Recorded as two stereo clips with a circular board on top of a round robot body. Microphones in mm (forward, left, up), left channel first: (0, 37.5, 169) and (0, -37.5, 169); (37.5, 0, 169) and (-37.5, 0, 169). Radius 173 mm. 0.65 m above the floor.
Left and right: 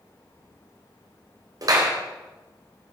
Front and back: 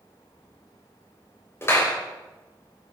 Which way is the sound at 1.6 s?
55° right.